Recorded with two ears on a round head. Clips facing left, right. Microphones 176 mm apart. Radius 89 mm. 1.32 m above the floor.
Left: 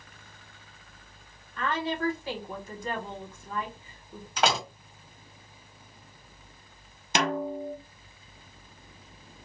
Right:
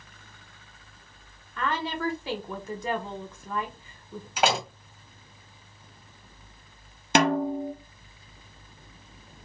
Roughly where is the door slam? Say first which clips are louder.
Right 2 dB; centre.